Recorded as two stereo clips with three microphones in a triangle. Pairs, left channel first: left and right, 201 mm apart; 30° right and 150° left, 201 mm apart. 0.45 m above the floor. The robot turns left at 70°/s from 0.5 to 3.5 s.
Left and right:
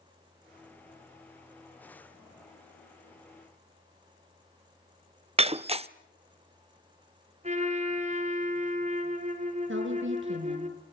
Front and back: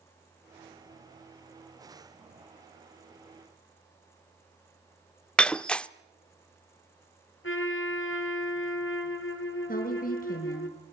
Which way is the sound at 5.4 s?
110° right.